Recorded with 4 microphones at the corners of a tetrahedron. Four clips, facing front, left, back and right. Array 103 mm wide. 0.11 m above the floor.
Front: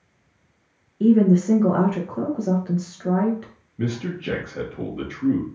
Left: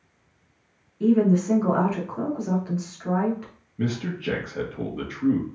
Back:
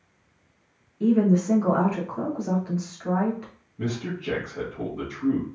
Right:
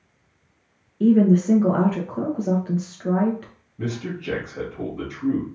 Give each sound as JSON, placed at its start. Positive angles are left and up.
{"t": 1.0, "sound": "a woman speaking", "azimuth_deg": -40, "distance_m": 1.5}
{"t": 3.8, "sound": "a man speaking", "azimuth_deg": 40, "distance_m": 2.5}